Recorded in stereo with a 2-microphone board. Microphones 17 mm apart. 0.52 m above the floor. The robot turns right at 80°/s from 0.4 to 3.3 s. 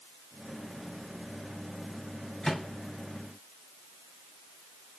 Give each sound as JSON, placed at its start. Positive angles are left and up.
{"t": 2.4, "sound": "a microwave", "side_deg": 25, "distance_m": 2.0}